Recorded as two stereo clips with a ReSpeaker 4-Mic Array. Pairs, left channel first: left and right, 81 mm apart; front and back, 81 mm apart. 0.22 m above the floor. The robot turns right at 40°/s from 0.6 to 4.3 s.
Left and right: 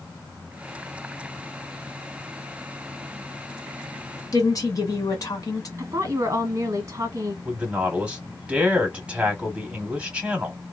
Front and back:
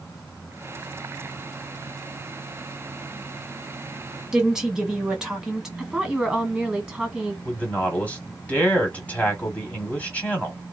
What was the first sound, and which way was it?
A woman speaking, 100° left.